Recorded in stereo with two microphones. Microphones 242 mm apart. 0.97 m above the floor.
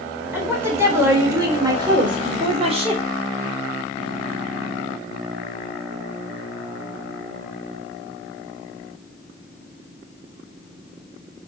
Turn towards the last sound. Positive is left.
turn(degrees=-25)  # may be behind; listen again after turning